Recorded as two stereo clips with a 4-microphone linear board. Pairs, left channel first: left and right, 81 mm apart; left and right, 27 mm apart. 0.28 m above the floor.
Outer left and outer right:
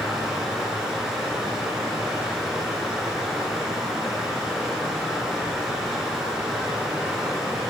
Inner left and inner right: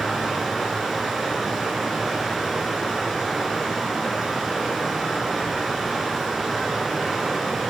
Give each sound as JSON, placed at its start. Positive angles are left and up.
{"t": 0.0, "sound": "running water", "side_deg": -5, "distance_m": 1.6}